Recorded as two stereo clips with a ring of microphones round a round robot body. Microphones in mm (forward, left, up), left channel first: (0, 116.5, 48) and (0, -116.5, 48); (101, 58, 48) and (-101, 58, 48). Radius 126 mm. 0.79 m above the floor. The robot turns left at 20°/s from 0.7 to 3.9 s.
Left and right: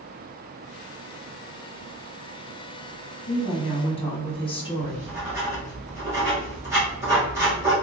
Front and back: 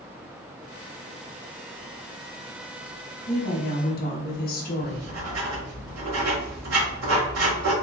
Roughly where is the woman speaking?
Ahead left.